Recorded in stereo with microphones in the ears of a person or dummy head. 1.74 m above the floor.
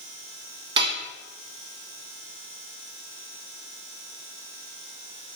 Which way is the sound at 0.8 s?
25° right (ahead or behind).